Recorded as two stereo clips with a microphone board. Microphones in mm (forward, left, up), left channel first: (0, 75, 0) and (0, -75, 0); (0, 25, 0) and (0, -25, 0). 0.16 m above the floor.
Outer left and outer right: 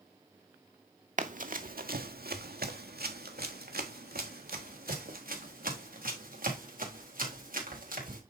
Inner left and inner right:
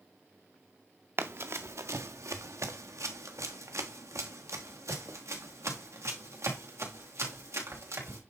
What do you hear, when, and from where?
1.2 s running footsteps: 55° right (ahead or behind), 1.0 m; by 8.2 s 65° right (ahead or behind), 4 m